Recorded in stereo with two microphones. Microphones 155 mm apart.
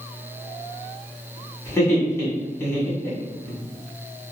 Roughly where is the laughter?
Centre.